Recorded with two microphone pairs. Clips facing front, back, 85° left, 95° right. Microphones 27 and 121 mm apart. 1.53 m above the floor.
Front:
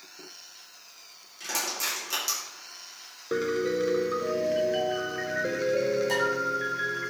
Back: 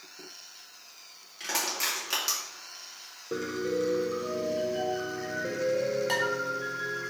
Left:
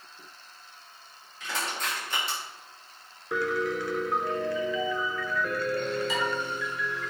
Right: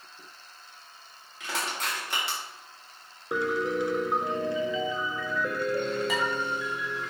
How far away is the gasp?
I don't hear a gasp.